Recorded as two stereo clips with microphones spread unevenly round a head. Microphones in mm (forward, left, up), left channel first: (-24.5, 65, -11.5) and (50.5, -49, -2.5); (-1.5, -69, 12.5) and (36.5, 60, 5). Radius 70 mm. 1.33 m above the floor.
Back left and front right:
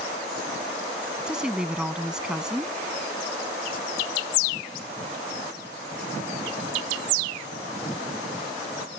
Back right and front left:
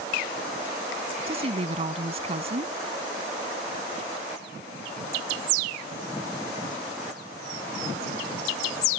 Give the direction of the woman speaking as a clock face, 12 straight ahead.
11 o'clock.